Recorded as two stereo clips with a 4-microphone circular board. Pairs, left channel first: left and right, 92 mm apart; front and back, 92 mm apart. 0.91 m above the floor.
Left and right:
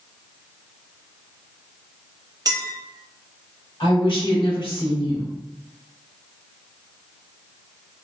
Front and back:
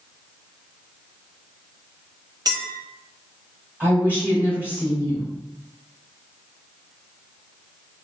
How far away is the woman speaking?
About 1.2 m.